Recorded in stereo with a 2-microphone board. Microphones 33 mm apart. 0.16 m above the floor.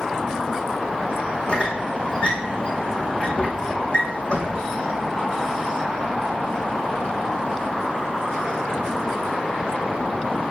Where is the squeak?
40° left (ahead or behind), 2 m.